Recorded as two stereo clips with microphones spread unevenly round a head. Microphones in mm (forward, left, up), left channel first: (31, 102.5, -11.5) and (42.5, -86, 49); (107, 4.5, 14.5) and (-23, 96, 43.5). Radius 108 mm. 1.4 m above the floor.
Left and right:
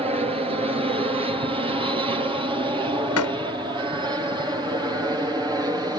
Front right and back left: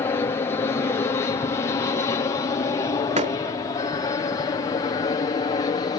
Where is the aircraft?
25° right; by 6.0 s 5° right.